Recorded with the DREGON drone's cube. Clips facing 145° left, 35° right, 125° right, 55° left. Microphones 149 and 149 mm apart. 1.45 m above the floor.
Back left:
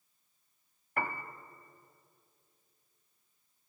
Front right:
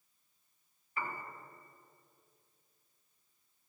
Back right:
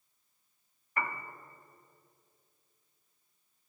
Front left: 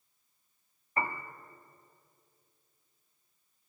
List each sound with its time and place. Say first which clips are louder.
1.0 s a piano: back left 5 dB, front left 2 dB; 120° left, 1.6 m